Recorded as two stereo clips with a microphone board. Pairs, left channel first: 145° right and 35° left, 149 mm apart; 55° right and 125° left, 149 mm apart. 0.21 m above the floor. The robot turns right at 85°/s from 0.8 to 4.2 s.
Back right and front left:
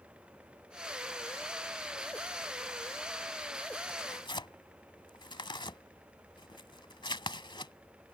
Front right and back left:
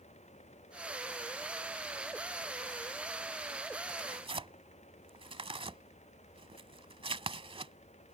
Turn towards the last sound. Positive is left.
turn(degrees=165)